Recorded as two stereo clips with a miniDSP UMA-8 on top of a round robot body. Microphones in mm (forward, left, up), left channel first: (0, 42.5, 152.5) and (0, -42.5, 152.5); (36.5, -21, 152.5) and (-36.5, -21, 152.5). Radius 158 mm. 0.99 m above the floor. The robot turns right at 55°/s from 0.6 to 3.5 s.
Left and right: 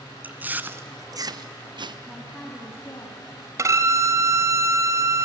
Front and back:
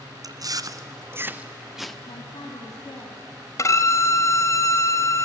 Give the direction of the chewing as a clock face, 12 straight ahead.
5 o'clock.